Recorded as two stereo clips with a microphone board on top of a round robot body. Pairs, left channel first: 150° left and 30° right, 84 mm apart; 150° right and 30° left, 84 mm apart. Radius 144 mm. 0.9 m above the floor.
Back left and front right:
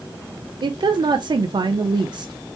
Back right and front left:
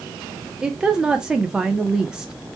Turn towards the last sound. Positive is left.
turn(degrees=-50)